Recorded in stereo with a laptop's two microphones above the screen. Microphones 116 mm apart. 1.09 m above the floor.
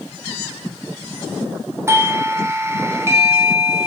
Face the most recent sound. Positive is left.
turn(degrees=-20)  # may be behind; listen again after turning